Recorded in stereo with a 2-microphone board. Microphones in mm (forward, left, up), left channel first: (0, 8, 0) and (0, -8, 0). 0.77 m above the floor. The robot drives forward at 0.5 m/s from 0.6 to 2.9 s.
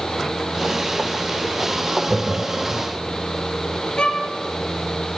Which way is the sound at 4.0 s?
85° left.